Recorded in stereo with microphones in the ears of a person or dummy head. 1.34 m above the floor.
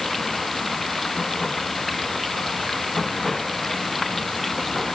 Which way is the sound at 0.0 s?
5° right (ahead or behind).